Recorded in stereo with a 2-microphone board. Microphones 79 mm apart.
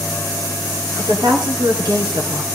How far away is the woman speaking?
About 3 m.